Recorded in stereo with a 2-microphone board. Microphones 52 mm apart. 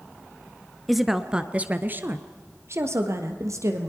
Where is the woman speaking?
Centre (ahead or behind), 1.3 m; by 3.9 s 65° right (ahead or behind), 2.5 m.